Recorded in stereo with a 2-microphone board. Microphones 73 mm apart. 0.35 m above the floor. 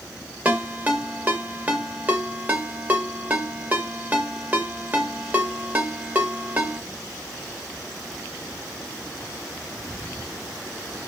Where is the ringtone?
25° right (ahead or behind), 0.6 m.